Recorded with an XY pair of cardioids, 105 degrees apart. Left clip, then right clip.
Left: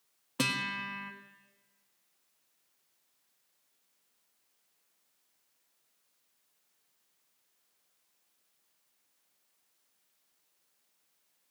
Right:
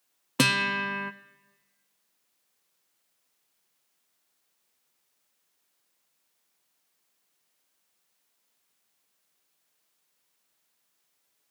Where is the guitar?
60° right, 0.7 m.